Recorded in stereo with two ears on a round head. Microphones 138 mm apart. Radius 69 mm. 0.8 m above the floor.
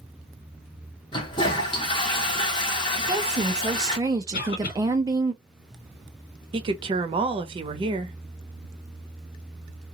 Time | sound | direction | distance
1.1 | a toilet flushing | 30° left (ahead or behind) | 1.0 m
3.0 | a woman speaking | 25° right (ahead or behind) | 0.6 m
4.3 | a cough | 70° left (ahead or behind) | 1.5 m
6.5 | a woman speaking | 35° right (ahead or behind) | 0.6 m